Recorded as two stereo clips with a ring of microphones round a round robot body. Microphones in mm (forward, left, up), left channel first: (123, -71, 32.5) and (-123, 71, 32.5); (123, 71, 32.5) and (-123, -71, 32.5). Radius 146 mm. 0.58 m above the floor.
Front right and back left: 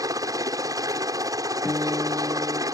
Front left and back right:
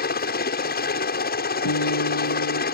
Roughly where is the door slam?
No door slam in this recording.